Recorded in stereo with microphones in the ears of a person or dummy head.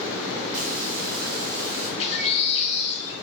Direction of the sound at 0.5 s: 50° right (ahead or behind).